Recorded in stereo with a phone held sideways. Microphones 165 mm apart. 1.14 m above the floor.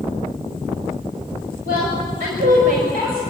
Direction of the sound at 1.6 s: 80° right.